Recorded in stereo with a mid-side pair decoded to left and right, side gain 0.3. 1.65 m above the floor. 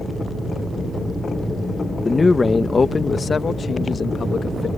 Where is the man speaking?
35° left; by 4.7 s 70° left.